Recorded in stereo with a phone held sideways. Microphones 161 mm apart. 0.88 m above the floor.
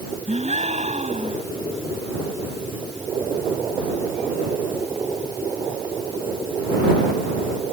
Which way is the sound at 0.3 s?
45° right (ahead or behind).